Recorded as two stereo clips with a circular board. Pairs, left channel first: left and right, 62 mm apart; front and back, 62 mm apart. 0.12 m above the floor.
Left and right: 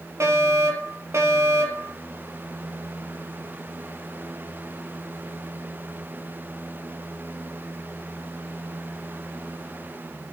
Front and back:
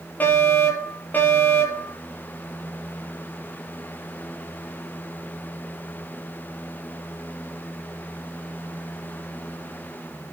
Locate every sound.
0.2 s a fire alarm: 55° right, 5 m